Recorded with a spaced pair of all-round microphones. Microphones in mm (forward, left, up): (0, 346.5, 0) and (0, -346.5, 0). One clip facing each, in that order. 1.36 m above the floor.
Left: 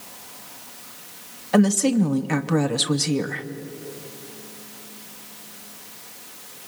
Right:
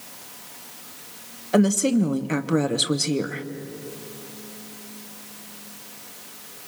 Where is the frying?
No frying in this recording.